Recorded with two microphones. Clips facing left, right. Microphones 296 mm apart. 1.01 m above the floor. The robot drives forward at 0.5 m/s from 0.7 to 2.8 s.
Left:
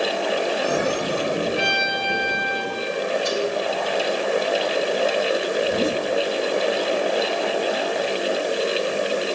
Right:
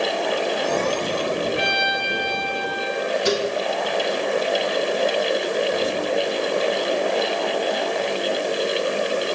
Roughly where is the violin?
Left.